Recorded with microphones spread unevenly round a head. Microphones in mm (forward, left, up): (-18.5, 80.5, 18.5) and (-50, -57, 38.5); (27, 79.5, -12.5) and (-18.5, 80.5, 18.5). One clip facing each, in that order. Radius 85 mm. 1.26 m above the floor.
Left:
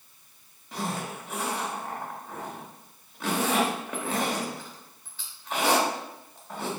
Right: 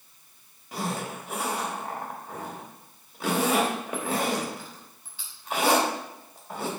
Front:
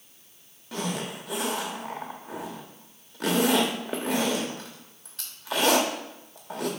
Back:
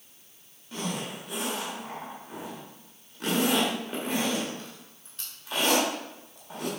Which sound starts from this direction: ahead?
A zipper, at 0.7 s.